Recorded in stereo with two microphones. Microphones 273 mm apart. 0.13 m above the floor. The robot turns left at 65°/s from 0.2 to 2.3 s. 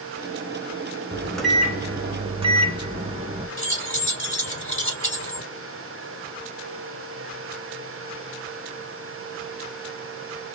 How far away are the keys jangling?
About 1.7 m.